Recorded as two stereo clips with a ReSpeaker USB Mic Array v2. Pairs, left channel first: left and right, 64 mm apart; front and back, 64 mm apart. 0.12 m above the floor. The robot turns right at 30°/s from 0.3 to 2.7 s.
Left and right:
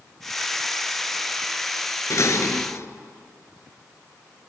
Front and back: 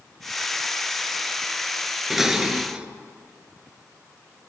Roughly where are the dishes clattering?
Left.